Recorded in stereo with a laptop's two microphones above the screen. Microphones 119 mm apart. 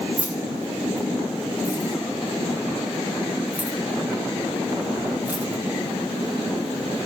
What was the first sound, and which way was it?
Keys jangling, 15° right (ahead or behind).